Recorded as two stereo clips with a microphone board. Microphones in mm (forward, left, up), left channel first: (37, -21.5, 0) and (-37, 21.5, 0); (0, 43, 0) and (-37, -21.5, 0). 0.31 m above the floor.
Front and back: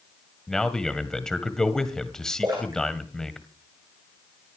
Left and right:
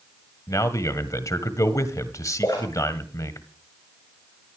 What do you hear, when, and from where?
0.5 s a man speaking: 50° left, 1.7 m
2.4 s a splash: 100° left, 8.5 m